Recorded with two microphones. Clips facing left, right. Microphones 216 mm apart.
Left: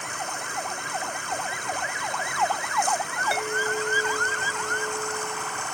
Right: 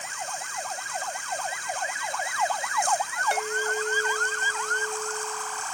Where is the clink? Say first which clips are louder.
Left 2 dB; 5° left (ahead or behind).